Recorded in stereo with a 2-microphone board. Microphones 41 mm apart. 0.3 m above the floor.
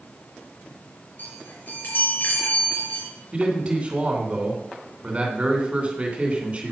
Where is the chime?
50° left (ahead or behind), 6 m.